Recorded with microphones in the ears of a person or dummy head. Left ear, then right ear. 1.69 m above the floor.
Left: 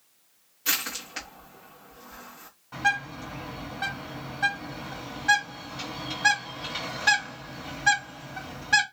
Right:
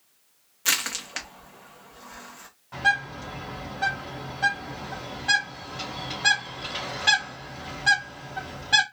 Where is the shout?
I don't hear a shout.